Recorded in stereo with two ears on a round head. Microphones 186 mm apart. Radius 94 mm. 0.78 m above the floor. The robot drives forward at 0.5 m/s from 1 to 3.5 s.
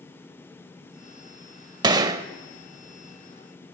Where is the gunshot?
20° right (ahead or behind), 0.6 m.